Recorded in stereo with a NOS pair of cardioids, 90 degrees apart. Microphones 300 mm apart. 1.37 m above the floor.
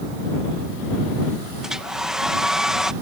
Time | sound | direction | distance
1.6 | a hair dryer | straight ahead | ?